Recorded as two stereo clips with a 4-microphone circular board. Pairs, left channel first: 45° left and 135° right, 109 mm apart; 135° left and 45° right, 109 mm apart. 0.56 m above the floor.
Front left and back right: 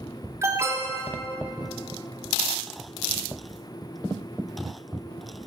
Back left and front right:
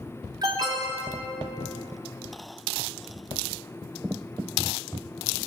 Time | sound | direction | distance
0.4 | an alarm | 80° right | 2.5 m